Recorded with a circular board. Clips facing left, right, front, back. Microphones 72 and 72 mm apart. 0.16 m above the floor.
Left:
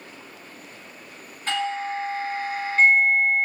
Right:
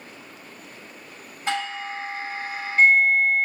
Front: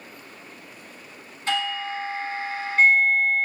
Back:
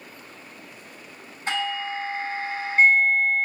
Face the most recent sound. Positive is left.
turn(degrees=-150)